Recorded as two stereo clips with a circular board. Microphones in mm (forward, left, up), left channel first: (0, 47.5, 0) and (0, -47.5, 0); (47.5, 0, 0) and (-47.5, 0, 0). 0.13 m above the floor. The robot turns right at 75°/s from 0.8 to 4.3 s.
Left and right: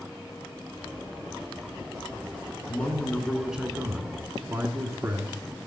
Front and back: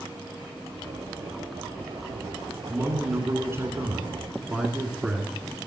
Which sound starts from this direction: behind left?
A man speaking, at 2.7 s.